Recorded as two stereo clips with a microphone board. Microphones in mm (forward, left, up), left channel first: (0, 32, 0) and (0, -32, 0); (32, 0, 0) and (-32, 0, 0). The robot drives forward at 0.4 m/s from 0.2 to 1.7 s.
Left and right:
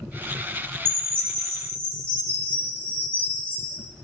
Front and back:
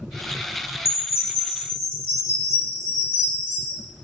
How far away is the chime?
About 2.0 m.